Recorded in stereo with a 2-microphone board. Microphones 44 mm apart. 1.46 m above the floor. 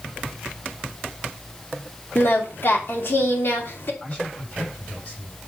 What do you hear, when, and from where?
2.1 s singing: 50° left (ahead or behind), 3 m
4.0 s a man speaking: 25° left (ahead or behind), 8 m